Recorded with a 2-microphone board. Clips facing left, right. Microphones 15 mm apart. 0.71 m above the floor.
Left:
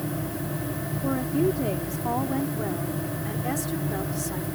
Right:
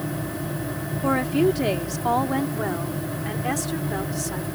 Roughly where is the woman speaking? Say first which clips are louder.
Right 4 dB; right.